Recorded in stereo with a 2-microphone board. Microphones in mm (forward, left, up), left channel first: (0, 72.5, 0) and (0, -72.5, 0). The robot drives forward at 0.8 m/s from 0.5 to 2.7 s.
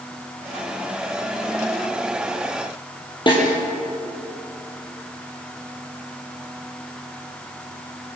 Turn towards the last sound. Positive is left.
turn(degrees=35)  # may be behind; listen again after turning